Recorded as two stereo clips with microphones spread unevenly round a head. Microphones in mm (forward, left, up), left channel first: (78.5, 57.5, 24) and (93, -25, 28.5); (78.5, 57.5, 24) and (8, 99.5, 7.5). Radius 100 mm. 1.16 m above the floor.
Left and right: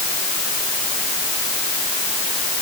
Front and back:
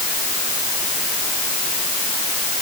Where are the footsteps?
No footsteps in this recording.